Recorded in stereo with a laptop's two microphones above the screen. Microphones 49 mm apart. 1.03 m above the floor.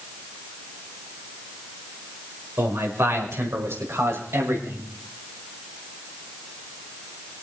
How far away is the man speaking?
About 5 m.